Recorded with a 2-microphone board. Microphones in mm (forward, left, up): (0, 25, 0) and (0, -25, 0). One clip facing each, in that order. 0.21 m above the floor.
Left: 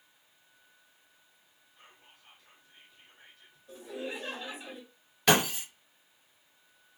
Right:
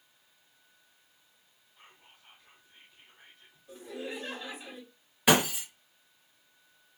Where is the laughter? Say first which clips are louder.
Left 1 dB; centre (ahead or behind), 2.0 m.